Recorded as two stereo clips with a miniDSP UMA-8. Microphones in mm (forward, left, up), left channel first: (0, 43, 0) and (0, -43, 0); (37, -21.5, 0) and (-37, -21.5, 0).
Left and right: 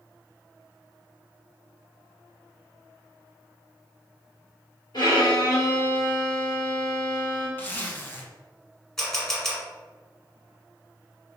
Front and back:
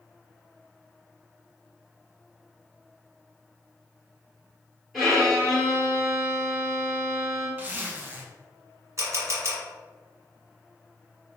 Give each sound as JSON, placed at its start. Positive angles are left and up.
{"t": 4.9, "sound": "a violin", "azimuth_deg": 90, "distance_m": 1.8}
{"t": 7.6, "sound": "a zipper", "azimuth_deg": 140, "distance_m": 0.6}
{"t": 9.0, "sound": "a camera shutter", "azimuth_deg": 170, "distance_m": 1.3}